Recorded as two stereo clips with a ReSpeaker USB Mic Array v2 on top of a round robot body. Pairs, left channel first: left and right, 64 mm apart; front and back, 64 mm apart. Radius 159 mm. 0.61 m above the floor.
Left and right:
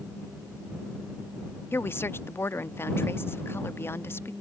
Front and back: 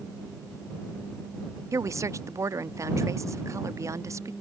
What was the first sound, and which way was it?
A woman speaking, 145° left.